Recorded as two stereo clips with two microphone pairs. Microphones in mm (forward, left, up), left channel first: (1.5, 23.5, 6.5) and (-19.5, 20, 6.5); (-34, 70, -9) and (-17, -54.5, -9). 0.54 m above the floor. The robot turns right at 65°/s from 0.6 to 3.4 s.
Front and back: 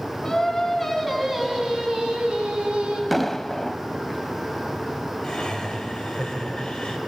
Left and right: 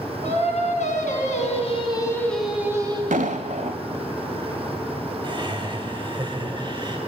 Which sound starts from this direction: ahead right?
Laughter, at 5.2 s.